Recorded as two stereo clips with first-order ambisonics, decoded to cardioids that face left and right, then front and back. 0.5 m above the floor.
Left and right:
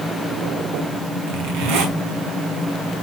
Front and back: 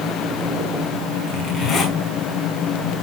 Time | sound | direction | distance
1.3 | a zipper | 70° right | 5 m